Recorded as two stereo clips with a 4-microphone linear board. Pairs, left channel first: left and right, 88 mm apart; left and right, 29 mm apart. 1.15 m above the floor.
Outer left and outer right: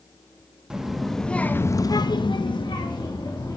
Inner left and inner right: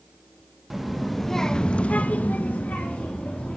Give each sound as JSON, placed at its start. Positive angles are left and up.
{"t": 0.7, "sound": "a child speaking", "side_deg": -10, "distance_m": 1.0}